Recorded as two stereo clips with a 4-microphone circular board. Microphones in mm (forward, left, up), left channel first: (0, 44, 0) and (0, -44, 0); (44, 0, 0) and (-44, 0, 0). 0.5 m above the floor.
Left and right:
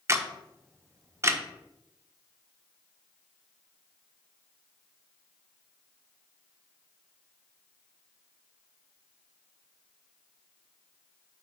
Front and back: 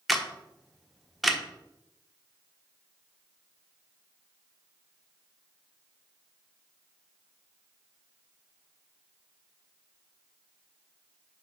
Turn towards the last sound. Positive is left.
turn(degrees=-90)